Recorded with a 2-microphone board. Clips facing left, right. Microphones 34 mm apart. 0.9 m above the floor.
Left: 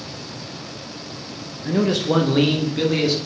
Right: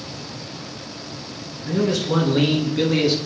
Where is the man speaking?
45° left (ahead or behind), 1.0 m; by 3.2 s 5° right (ahead or behind), 1.5 m.